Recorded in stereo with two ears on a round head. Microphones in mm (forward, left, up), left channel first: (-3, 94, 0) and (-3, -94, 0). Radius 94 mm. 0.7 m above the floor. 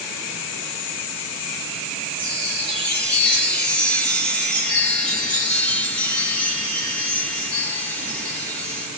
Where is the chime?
5° left (ahead or behind), 0.9 m.